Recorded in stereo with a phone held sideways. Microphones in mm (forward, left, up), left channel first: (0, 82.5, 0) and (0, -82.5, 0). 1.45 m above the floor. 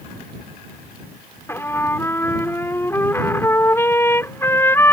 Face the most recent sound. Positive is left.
turn(degrees=15)  # may be behind; listen again after turning